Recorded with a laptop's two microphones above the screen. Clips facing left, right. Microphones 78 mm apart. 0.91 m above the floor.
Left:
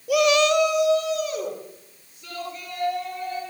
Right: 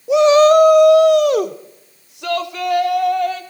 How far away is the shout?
About 1.2 m.